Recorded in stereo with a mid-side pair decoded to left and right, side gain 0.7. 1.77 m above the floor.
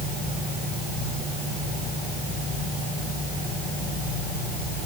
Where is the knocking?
No knocking in this recording.